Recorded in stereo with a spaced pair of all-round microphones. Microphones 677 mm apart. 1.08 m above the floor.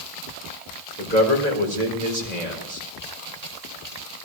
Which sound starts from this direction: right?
A man speaking, at 1.0 s.